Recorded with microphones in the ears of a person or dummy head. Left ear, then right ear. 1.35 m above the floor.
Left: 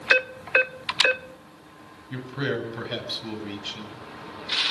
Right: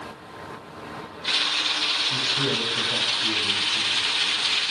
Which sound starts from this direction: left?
A man speaking, at 2.1 s.